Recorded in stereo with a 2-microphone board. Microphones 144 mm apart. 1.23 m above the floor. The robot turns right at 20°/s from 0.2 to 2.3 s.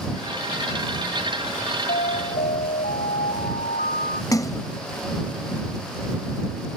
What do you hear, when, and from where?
1.9 s an alarm: 85° left
4.3 s a splash: 25° left (ahead or behind)